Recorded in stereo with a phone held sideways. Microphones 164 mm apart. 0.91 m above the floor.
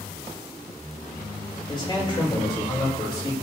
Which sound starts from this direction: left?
A man speaking, at 1.7 s.